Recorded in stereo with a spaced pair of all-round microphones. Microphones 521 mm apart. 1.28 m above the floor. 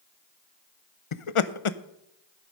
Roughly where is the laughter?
Left.